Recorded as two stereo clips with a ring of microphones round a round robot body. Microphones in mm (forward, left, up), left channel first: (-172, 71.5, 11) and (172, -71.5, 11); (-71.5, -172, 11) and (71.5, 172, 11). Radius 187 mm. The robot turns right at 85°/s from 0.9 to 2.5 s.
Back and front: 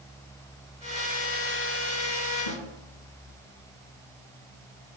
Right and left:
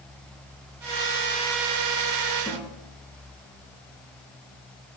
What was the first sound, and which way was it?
A snare drum, 165° left.